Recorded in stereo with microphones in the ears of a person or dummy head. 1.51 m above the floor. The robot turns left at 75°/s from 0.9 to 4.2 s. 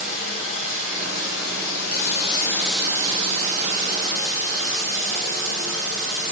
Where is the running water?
135° left, 2.5 m; by 6.3 s 110° right, 2.5 m.